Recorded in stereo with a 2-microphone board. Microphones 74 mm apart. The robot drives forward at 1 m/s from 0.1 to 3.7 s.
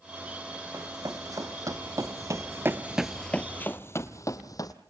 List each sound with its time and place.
0.7 s running footsteps: 55° right (ahead or behind), 3 m; by 4.8 s 60° left (ahead or behind), 1.9 m